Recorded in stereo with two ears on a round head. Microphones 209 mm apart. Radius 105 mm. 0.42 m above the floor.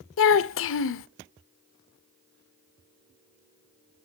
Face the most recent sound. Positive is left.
turn(degrees=60)  # may be behind; listen again after turning